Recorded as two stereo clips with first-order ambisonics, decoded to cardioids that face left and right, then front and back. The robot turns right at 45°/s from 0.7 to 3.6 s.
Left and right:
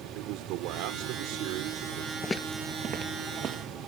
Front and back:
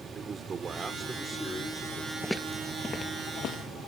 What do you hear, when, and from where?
0.1 s a man speaking: 110° right; by 2.1 s 45° right
2.2 s footsteps: 70° left; by 3.8 s 35° right